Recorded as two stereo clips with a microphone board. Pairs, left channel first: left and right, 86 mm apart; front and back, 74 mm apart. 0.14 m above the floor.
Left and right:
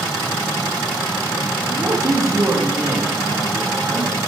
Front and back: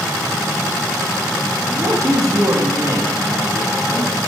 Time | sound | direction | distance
1.7 | a man speaking | 140° right | 6 m